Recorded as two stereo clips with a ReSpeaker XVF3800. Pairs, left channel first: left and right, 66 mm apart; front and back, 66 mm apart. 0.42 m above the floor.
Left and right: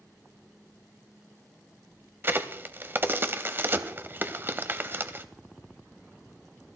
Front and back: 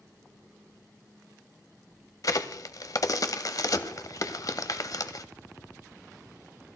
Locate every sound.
2.2 s a crack: 30° right, 0.8 m